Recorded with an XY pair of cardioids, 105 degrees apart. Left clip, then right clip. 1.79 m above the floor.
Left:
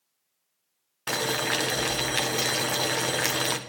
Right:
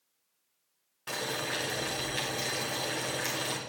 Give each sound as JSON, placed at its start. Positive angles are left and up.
{"t": 1.1, "sound": "boiling", "azimuth_deg": 60, "distance_m": 1.3}